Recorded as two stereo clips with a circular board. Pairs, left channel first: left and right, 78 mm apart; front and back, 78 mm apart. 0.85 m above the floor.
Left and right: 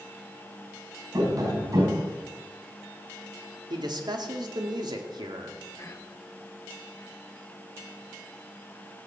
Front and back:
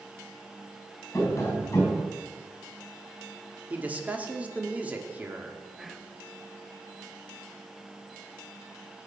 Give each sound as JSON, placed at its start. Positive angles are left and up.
{"t": 1.1, "sound": "tapping", "azimuth_deg": -55, "distance_m": 4.5}
{"t": 3.7, "sound": "a man speaking", "azimuth_deg": -110, "distance_m": 2.0}
{"t": 5.8, "sound": "whispering", "azimuth_deg": 95, "distance_m": 0.9}